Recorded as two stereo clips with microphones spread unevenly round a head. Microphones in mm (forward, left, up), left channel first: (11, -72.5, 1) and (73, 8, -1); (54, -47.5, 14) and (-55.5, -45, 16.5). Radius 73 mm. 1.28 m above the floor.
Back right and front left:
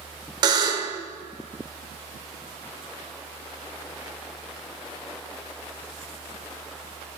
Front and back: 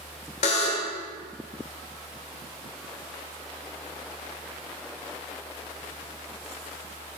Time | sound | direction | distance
0.4 | a buzzer | 20° left | 1.4 m